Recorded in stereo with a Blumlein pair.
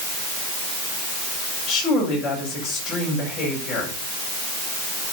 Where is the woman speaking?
25° left, 6.5 m.